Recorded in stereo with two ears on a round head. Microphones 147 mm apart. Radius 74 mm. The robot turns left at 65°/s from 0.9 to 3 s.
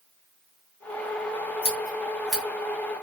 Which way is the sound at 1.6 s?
35° left (ahead or behind).